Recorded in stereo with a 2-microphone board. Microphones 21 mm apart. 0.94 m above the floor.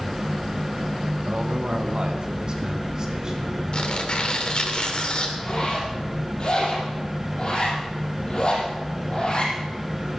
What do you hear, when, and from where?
1.2 s a man speaking: 70° right (ahead or behind), 1.9 m; by 3.6 s 30° right (ahead or behind), 4.5 m
3.7 s tearing paper: 55° left (ahead or behind), 2.5 m
5.4 s a zipper: 40° left (ahead or behind), 5.5 m